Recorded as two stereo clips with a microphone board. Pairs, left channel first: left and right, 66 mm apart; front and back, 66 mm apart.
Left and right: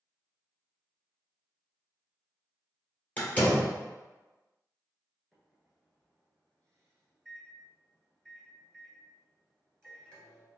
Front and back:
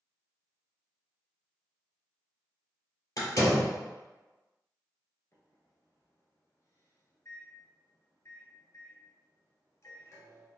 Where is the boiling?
I don't hear boiling.